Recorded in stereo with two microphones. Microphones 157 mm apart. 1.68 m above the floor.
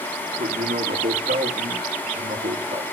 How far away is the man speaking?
About 3.5 m.